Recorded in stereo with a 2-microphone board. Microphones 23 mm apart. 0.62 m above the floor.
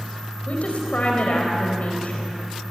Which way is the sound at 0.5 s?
60° left (ahead or behind).